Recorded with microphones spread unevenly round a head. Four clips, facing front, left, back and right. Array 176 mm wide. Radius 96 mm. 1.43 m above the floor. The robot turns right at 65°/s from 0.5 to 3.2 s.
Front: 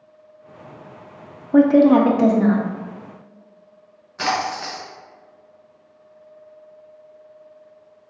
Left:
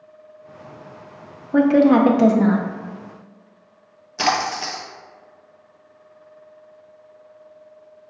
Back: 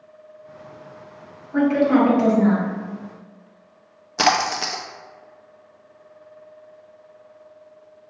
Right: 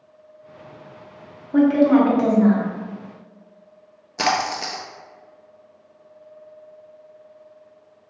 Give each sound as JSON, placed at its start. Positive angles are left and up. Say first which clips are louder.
{"t": 1.5, "sound": "a woman speaking", "louder": "left 1 dB, front 5 dB", "azimuth_deg": 25, "distance_m": 0.5}
{"t": 4.2, "sound": "a splash", "louder": "left 1 dB, back 3 dB", "azimuth_deg": -160, "distance_m": 0.6}